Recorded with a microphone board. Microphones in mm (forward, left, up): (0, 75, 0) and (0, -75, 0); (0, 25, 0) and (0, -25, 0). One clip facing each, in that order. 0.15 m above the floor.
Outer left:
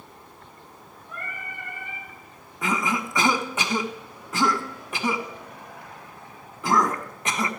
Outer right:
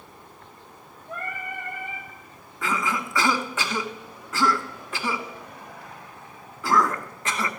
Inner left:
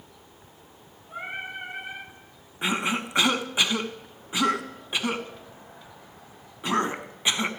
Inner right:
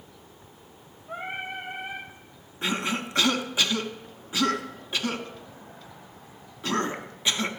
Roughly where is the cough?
Centre.